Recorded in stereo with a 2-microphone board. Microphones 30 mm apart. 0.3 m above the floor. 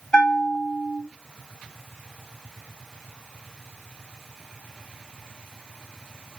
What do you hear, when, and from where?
0.1 s a bell: 25° left (ahead or behind), 1.7 m